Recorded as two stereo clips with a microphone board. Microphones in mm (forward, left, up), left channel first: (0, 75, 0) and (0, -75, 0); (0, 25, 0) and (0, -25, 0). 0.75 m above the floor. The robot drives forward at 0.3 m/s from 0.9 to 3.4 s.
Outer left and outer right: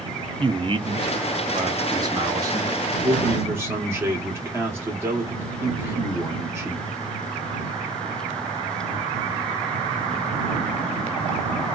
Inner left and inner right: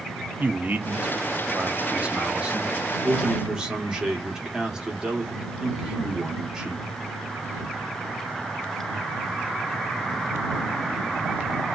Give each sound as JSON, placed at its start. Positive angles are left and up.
{"t": 0.4, "sound": "a man speaking", "side_deg": -35, "distance_m": 0.5}